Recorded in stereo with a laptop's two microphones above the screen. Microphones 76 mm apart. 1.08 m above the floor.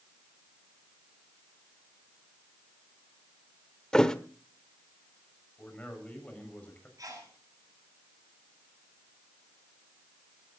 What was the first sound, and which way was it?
A thud, 10° left (ahead or behind).